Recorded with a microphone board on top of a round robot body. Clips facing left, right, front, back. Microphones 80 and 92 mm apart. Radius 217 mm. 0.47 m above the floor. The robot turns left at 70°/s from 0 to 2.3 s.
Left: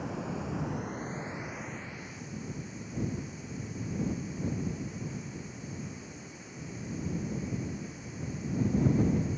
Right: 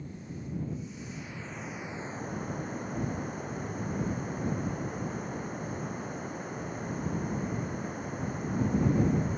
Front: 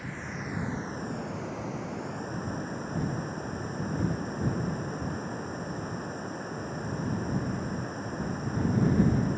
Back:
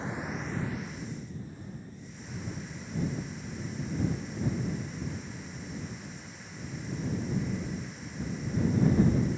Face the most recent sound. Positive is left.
turn(degrees=-45)